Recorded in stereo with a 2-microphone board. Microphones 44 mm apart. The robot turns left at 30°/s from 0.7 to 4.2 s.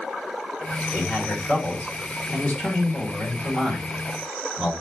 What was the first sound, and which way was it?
A man speaking, 80° left.